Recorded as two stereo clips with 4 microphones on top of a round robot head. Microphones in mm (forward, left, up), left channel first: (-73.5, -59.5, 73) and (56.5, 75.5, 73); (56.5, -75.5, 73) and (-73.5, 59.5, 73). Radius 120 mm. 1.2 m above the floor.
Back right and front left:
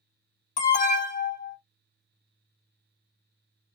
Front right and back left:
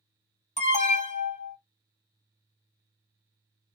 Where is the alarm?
90° right, 1.8 m.